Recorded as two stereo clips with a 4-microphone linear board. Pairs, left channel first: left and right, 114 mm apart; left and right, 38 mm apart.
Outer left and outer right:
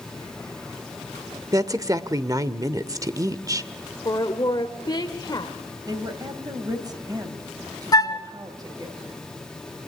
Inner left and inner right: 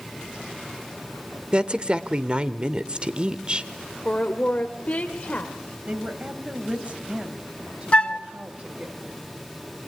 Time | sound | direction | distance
1.5 | a woman speaking | 30° right (ahead or behind) | 0.8 m
4.0 | a woman speaking | 35° left (ahead or behind) | 1.3 m
5.9 | a woman speaking | 35° right (ahead or behind) | 2.5 m
7.9 | a flute | 35° left (ahead or behind) | 0.7 m